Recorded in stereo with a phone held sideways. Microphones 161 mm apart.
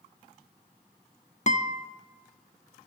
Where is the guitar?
45° left (ahead or behind), 1.4 m.